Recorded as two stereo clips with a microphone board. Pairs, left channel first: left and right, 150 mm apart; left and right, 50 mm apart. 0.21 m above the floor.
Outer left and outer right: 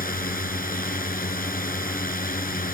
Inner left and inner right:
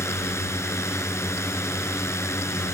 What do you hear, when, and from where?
0.0 s a drone: 65° left (ahead or behind)